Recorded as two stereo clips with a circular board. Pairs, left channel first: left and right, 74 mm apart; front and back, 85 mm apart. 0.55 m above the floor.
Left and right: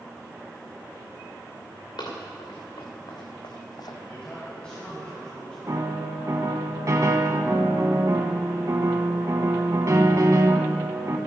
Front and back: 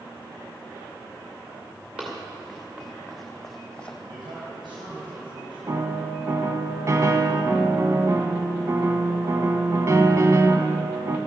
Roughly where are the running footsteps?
Left.